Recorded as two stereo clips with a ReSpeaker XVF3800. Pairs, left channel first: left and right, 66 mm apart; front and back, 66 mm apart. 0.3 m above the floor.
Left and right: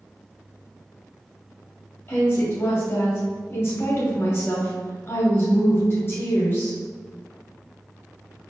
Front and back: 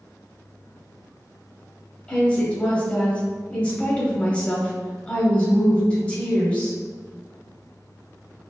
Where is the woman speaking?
60° left, 1.4 m.